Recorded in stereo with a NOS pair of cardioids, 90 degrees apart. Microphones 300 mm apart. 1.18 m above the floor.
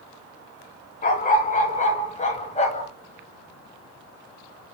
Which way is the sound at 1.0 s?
30° left.